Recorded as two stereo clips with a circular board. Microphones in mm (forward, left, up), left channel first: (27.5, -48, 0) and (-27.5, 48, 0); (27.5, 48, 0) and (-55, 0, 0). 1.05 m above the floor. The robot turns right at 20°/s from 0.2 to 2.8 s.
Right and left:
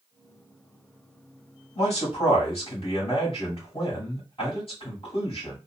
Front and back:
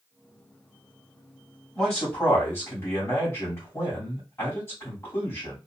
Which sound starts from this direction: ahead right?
A man speaking, at 1.8 s.